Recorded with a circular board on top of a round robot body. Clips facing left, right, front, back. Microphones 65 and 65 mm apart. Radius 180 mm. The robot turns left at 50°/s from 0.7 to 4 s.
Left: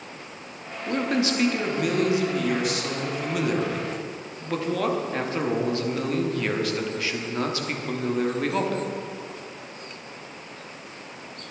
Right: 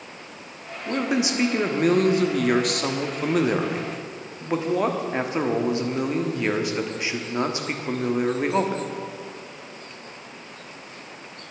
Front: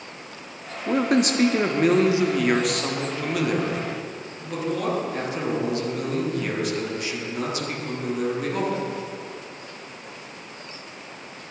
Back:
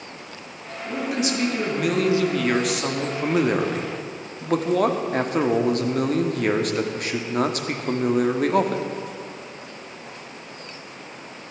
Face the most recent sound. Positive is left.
turn(degrees=-160)